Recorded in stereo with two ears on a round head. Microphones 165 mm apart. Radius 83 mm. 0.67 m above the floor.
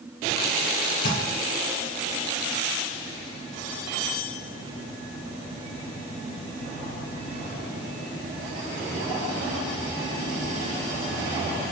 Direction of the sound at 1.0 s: 60° left (ahead or behind).